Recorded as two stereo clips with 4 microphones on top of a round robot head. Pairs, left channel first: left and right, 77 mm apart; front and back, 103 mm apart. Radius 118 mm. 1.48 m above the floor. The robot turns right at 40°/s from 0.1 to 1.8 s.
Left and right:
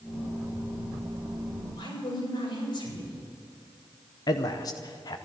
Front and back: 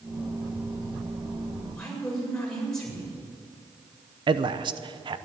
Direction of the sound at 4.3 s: 135° left.